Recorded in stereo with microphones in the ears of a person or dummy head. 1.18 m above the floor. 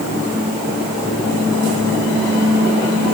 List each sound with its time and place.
Only background noise.